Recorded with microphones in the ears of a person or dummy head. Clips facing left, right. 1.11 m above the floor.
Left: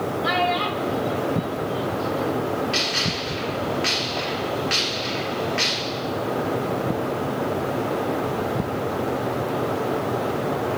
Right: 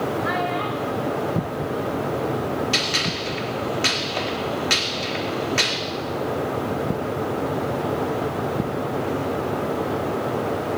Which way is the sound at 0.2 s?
45° left (ahead or behind).